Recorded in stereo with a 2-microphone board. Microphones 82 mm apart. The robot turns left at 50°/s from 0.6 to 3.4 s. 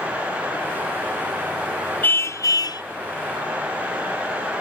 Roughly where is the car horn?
Behind left.